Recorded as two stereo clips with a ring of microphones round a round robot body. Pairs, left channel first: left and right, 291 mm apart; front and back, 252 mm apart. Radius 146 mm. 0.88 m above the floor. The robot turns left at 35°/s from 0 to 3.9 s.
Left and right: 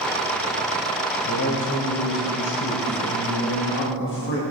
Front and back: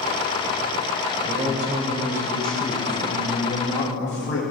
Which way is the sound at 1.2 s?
130° left.